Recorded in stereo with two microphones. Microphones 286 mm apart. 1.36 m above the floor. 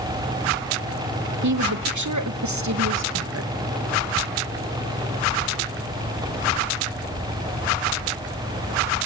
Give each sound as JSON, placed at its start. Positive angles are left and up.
{"t": 1.4, "sound": "a woman speaking", "side_deg": -70, "distance_m": 1.0}